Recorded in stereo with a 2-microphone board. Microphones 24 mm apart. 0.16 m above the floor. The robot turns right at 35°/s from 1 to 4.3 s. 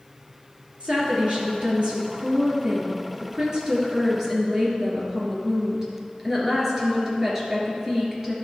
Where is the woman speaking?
120° right, 2.5 m; by 8.3 s 5° right, 2.5 m.